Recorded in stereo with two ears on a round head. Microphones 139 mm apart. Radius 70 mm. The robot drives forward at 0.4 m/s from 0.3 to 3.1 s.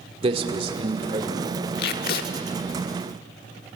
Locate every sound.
0.2 s a man speaking: 40° right (ahead or behind), 2 m; by 1.6 s 35° right (ahead or behind), 2.5 m
1.8 s tape being pulled: 70° left (ahead or behind), 1.3 m; by 2.3 s 65° left (ahead or behind), 1.3 m